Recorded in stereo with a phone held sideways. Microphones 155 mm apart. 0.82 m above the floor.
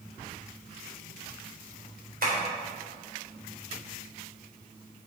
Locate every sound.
2.2 s tapping: 70° right (ahead or behind), 3.5 m